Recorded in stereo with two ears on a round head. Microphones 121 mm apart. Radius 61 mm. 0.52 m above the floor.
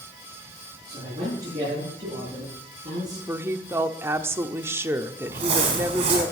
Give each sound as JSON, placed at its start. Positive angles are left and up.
{"t": 0.9, "sound": "a man speaking", "side_deg": -25, "distance_m": 9.0}
{"t": 3.3, "sound": "a woman speaking", "side_deg": -20, "distance_m": 0.9}
{"t": 5.3, "sound": "crumpling", "side_deg": -45, "distance_m": 5.5}